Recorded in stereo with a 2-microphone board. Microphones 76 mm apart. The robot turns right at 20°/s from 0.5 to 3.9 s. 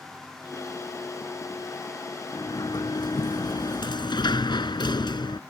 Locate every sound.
2.3 s a sliding door: 60° left; by 5.4 s 90° left